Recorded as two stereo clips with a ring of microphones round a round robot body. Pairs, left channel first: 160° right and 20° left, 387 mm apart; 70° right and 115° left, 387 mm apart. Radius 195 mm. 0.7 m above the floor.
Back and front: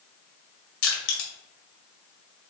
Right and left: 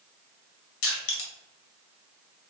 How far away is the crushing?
About 1.3 m.